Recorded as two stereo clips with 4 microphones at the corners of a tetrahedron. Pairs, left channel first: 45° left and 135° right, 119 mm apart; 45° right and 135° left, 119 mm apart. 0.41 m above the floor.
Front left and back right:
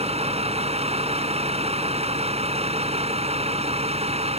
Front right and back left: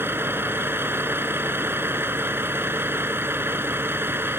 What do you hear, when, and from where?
0.0 s a vehicle: 155° right